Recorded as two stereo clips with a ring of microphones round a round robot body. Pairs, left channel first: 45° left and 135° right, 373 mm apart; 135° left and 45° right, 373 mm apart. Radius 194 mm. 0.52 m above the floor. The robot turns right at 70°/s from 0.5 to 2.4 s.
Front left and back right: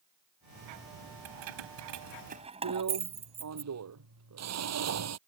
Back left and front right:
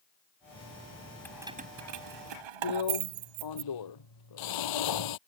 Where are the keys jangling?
140° right; by 3.6 s 60° right.